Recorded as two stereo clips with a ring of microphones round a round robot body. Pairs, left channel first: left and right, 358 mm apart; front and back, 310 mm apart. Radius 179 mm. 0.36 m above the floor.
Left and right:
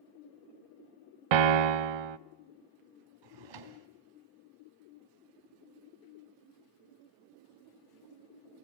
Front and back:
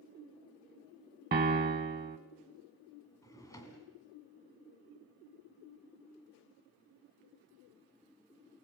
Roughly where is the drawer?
Right.